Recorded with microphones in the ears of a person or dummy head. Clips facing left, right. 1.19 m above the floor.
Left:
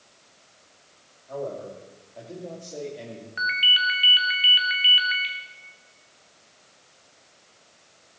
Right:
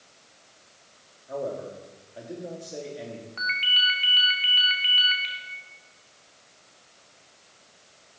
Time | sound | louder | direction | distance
1.3 | a man speaking | right 1 dB | 20° right (ahead or behind) | 3 m
3.4 | a ringtone | left 3 dB | 15° left (ahead or behind) | 1.3 m